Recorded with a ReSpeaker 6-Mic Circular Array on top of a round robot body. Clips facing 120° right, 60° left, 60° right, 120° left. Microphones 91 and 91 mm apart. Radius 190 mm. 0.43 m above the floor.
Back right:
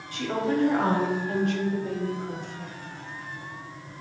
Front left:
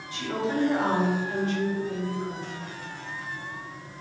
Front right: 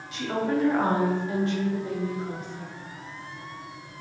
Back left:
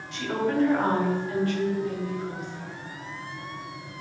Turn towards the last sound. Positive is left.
turn(degrees=-105)